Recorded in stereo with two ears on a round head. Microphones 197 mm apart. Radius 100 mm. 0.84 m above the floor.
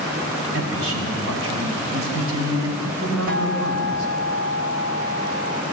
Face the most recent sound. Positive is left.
turn(degrees=-50)  # may be behind; listen again after turning